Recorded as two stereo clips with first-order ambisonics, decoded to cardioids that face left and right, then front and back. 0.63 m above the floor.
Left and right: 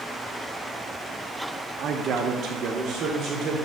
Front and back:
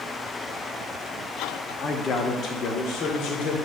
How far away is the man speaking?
About 0.9 m.